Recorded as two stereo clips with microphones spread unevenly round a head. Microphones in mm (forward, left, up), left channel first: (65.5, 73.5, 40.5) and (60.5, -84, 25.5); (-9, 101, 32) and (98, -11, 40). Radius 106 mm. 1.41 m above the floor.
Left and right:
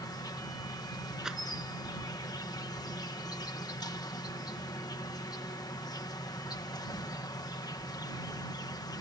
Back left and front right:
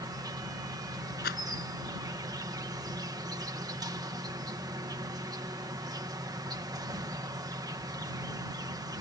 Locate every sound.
0.0 s an insect: 20° left
1.2 s a rattle: straight behind